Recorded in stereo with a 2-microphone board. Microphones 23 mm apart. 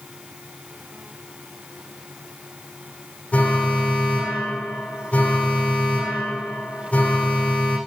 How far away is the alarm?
About 8 m.